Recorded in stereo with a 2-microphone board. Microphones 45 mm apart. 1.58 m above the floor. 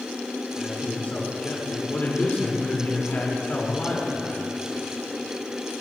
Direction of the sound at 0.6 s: 40° left (ahead or behind).